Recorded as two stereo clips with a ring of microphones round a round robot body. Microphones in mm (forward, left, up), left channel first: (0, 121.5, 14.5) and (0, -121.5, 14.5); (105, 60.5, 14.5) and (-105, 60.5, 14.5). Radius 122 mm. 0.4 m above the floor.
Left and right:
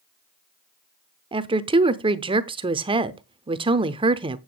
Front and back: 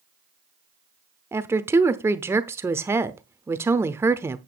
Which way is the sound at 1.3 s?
120° right.